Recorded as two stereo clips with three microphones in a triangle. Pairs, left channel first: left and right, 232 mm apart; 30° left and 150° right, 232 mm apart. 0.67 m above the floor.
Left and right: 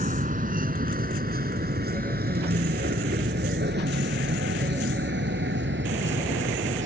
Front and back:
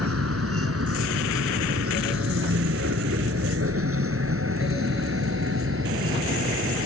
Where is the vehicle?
145° right; by 6.9 s 125° right.